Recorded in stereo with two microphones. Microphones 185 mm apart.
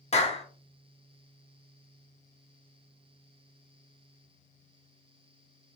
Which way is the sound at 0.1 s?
35° left (ahead or behind).